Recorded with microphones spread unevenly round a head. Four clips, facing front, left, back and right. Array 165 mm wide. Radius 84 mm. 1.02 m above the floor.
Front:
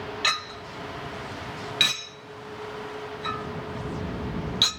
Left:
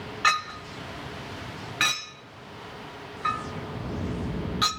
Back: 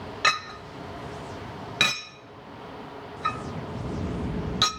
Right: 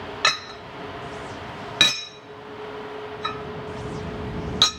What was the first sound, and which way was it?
A clink, 120° right.